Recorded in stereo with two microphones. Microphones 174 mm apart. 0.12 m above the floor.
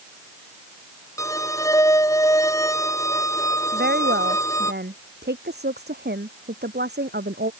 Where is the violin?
20° left (ahead or behind).